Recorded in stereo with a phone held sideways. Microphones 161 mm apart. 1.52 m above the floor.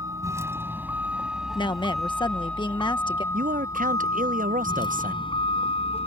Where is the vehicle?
20° right (ahead or behind); by 6.1 s 40° left (ahead or behind).